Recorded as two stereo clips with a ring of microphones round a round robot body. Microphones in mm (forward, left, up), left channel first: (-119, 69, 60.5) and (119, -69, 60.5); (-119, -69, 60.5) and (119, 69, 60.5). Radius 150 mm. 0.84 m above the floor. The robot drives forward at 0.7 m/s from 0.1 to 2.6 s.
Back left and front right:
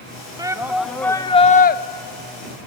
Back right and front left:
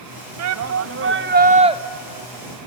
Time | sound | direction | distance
0.4 | a shout | 45° left | 1.3 m